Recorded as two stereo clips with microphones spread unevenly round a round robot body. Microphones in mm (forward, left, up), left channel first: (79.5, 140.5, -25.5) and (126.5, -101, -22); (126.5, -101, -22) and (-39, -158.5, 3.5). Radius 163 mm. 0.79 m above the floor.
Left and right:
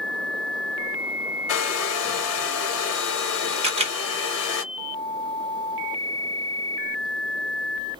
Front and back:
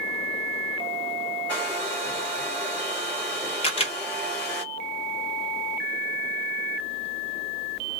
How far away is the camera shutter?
About 1.1 m.